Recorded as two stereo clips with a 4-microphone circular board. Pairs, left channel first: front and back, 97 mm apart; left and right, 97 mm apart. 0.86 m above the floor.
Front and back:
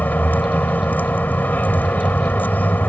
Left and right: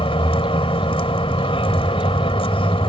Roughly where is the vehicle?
Left.